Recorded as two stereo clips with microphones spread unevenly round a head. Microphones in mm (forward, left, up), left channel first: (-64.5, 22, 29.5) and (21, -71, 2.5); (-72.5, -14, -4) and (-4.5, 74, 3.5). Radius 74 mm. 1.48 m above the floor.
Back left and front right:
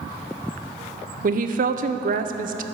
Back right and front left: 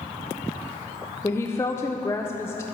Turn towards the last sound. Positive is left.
turn(degrees=-55)